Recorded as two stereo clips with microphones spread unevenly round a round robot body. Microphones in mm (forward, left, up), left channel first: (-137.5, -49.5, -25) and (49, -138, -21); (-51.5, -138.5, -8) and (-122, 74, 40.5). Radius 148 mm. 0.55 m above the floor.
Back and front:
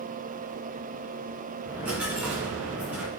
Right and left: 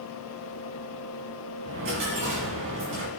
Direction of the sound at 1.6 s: 60° left.